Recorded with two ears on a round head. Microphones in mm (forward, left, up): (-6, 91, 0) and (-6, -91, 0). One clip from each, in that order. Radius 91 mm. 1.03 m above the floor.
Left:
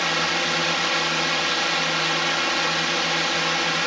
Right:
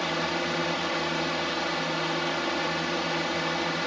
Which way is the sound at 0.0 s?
60° left (ahead or behind).